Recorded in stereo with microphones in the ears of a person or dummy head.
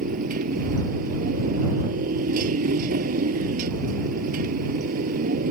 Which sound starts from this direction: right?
A motorcycle, at 0.0 s.